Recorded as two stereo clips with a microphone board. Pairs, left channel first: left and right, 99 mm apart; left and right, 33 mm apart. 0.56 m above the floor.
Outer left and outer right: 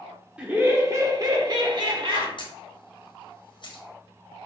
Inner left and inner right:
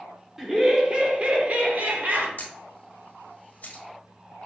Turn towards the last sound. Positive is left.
turn(degrees=50)  # may be behind; listen again after turning